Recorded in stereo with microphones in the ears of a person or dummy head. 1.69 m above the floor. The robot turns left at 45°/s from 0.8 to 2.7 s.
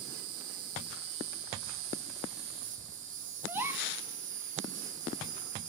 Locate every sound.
0.0 s an insect: 45° right, 2 m; by 5.7 s 130° right, 2 m
3.5 s a gasp: 15° right (ahead or behind), 1.0 m